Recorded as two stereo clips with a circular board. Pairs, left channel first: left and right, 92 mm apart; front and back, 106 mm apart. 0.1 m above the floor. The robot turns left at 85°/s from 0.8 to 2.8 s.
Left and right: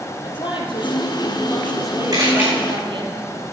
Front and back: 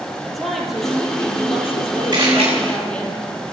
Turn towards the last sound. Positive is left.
turn(degrees=165)